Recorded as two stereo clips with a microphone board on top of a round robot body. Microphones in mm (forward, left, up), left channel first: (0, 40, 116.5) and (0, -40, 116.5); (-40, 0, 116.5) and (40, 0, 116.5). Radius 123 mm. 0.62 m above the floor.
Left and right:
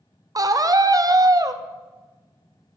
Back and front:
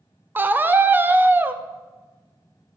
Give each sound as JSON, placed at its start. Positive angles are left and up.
{"t": 0.3, "sound": "a scream", "azimuth_deg": -60, "distance_m": 0.8}